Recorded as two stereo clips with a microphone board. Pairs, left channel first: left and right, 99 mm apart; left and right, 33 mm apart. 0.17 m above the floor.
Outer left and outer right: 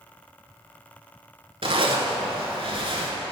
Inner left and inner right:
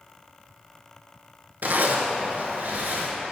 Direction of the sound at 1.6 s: 60° right (ahead or behind).